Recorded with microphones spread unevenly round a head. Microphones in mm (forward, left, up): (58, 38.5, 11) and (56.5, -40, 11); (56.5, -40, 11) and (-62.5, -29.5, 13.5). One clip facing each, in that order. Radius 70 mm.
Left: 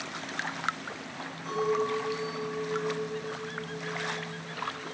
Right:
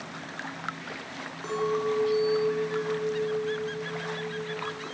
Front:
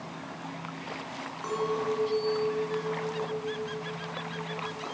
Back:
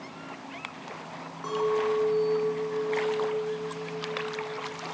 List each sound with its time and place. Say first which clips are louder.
1.4 s a clink: right 1 dB, back 4 dB; 100° right, 3.5 m